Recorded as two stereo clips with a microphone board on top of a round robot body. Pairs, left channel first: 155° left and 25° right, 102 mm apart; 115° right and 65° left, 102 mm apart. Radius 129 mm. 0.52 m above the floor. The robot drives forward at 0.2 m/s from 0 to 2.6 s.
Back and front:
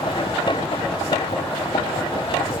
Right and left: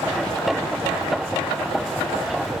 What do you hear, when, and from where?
Only background noise.